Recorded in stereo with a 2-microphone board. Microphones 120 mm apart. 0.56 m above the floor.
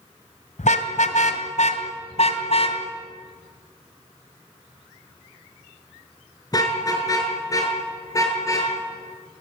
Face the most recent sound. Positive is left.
turn(degrees=25)  # may be behind; listen again after turning